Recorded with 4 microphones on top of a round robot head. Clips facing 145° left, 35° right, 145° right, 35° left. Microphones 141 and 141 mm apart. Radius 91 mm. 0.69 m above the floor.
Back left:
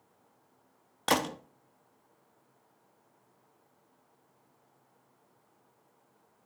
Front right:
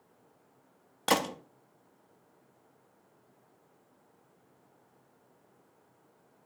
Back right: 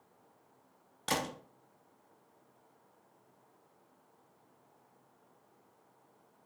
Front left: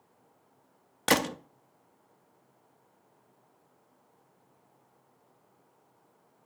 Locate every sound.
1.1 s a gunshot: 55° left, 0.5 m